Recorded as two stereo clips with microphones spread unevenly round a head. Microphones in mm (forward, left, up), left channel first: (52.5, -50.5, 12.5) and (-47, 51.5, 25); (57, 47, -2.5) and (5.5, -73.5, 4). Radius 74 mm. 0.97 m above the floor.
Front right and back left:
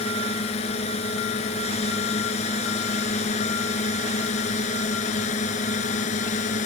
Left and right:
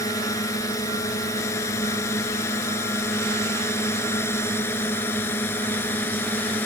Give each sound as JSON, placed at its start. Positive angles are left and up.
{"t": 0.0, "sound": "a drone", "azimuth_deg": 5}